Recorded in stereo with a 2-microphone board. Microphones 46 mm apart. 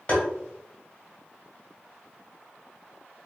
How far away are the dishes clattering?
I don't hear dishes clattering.